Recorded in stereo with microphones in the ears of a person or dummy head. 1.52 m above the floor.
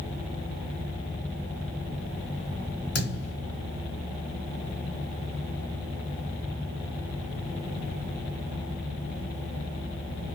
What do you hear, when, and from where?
3.0 s a thud: 60° left (ahead or behind), 3 m